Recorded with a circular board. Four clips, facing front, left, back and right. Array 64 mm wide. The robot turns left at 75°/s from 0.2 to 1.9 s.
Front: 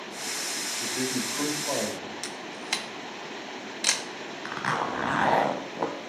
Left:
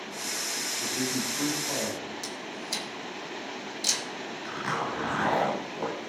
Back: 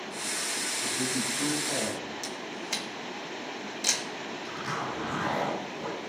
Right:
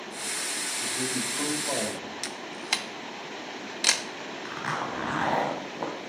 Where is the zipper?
10° right, 2.5 m.